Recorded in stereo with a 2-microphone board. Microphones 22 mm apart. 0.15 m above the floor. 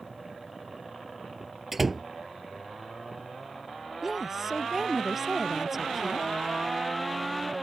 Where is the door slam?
10° right (ahead or behind).